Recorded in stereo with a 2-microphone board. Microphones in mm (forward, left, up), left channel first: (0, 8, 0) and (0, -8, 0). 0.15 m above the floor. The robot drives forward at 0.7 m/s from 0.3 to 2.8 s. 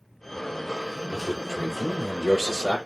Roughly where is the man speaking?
Centre.